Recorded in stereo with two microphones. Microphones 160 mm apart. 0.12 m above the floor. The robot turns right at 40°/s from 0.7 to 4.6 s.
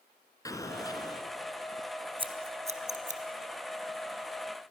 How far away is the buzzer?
No buzzer in this recording.